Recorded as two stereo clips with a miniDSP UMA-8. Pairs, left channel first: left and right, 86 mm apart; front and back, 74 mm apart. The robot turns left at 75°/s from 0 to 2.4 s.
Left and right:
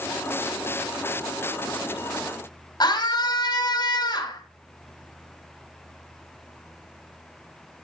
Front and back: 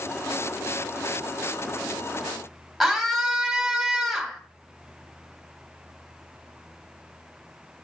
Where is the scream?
95° left, 2 m.